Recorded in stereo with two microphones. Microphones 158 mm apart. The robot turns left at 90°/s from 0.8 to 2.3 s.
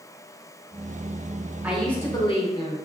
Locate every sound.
1.6 s a woman speaking: 165° right, 0.8 m; by 2.8 s 135° left, 0.8 m